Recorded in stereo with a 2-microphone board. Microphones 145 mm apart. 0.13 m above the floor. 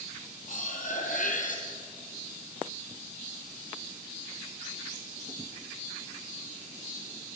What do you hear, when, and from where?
0.5 s cutlery clinking: 65° left (ahead or behind), 2.5 m